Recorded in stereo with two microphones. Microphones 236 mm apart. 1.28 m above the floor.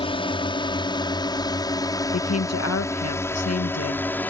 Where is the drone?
20° left (ahead or behind); by 4.3 s 5° left (ahead or behind).